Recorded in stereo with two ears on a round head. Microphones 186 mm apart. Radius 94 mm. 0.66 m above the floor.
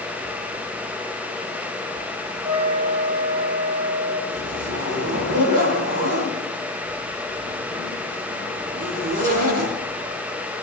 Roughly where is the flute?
Centre.